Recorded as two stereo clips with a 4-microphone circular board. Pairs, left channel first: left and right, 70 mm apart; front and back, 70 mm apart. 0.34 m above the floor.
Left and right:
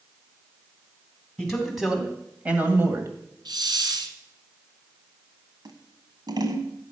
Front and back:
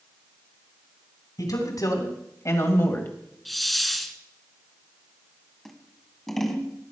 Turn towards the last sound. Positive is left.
turn(degrees=-85)